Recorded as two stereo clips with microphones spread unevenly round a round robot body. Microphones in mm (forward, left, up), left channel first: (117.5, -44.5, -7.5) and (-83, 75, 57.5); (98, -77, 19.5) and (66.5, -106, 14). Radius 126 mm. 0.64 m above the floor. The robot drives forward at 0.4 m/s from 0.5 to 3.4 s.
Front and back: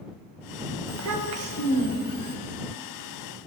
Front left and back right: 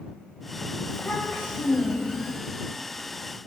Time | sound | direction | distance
0.9 | a child speaking | 120° left | 1.3 m